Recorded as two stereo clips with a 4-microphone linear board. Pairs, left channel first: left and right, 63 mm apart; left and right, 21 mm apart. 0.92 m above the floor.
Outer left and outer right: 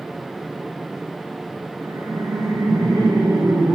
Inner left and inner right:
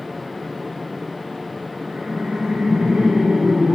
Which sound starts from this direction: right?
Laughter, at 1.8 s.